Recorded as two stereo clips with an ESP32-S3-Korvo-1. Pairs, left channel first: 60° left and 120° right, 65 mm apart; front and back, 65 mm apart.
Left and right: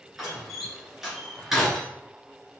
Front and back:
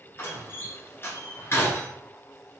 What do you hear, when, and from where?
0.2 s a door slam: 35° right, 1.6 m